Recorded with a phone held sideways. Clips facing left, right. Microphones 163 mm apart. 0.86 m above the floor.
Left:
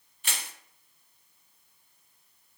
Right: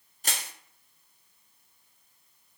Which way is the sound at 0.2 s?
40° right (ahead or behind).